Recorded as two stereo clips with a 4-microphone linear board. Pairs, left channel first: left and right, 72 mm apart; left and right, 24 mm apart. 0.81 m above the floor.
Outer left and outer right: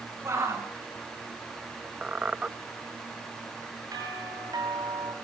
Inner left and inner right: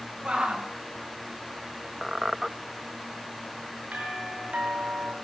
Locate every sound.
0.2 s a shout: 40° right (ahead or behind), 5.5 m
2.0 s a squeak: 15° right (ahead or behind), 0.5 m
3.9 s a doorbell: 65° right (ahead or behind), 9.5 m